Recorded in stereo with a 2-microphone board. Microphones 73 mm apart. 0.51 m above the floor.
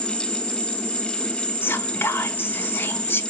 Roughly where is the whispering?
Left.